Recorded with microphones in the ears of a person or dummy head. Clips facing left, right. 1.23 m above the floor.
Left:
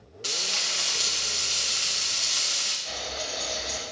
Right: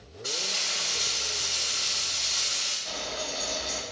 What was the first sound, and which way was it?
Frying, 35° left (ahead or behind).